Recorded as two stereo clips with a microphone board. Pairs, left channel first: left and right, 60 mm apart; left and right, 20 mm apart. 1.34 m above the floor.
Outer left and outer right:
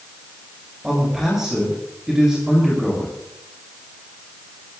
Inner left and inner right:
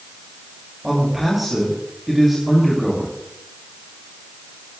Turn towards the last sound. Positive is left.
turn(degrees=-10)  # may be behind; listen again after turning